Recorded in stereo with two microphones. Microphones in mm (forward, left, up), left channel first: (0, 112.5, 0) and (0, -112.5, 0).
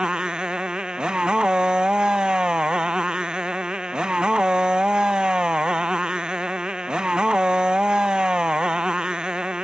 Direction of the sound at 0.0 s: 5° right (ahead or behind).